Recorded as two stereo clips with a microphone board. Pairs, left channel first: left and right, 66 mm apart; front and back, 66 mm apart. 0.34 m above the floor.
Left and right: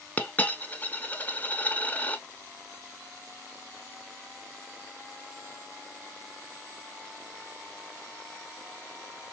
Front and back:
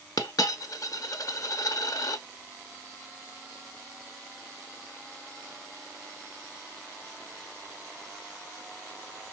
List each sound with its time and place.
0.2 s a dropped coin: 25° left, 0.5 m